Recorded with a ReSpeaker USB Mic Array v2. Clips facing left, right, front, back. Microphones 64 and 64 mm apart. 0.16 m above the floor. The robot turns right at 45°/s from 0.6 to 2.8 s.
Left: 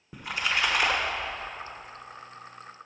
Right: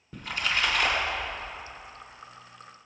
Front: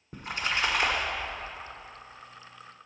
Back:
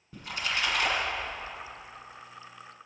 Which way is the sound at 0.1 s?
25° left.